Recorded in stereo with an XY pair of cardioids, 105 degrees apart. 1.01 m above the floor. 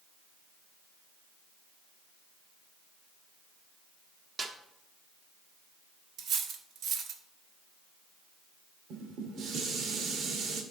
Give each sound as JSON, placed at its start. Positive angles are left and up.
{"t": 4.4, "sound": "a snare drum", "azimuth_deg": -35, "distance_m": 1.3}
{"t": 6.2, "sound": "cutlery clinking", "azimuth_deg": -70, "distance_m": 1.2}
{"t": 8.9, "sound": "dishes clattering", "azimuth_deg": -65, "distance_m": 1.8}